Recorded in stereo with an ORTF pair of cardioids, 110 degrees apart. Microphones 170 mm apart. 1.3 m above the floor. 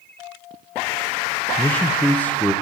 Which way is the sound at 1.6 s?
10° left.